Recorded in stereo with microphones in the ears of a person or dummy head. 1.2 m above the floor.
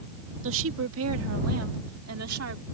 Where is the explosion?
No explosion in this recording.